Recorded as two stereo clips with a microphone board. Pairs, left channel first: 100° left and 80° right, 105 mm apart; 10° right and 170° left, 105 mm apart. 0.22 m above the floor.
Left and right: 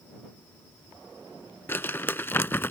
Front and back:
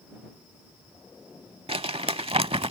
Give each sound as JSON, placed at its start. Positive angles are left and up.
{"t": 1.7, "sound": "crumpling", "azimuth_deg": 165}